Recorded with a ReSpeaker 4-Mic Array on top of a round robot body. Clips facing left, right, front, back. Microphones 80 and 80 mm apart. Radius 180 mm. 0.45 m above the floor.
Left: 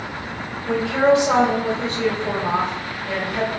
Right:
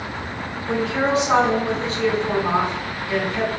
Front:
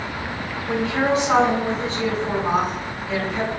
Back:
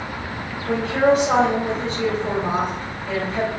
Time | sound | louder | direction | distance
0.7 | a woman speaking | left 4 dB, back 4 dB | 140° left | 1.6 m